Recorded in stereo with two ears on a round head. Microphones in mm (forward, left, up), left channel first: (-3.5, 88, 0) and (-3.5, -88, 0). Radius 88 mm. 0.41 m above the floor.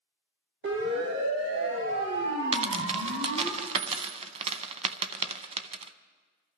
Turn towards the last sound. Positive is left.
turn(degrees=-30)  # may be behind; listen again after turning